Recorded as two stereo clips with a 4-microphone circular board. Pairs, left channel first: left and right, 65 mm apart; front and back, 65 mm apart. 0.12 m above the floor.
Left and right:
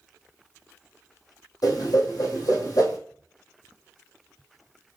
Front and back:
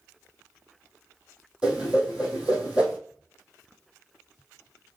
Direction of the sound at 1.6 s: 100° left.